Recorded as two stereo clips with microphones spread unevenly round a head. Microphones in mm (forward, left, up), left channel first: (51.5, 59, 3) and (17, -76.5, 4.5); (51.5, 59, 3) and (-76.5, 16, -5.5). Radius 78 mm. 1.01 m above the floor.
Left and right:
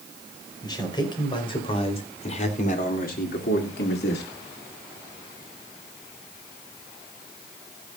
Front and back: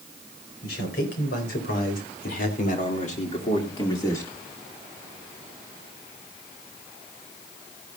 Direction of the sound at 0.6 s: 15° left.